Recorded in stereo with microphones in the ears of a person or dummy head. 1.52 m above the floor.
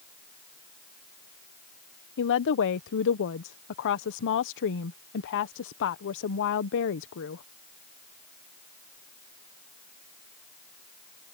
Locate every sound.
2.2 s a woman speaking: 60° left (ahead or behind)